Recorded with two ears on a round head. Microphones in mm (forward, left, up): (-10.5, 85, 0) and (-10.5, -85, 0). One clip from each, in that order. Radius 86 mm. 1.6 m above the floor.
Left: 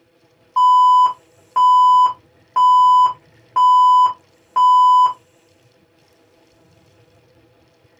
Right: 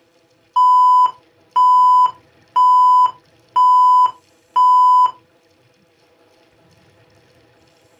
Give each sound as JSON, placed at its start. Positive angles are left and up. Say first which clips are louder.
{"t": 0.6, "sound": "an alarm", "louder": "even", "side_deg": -80, "distance_m": 1.2}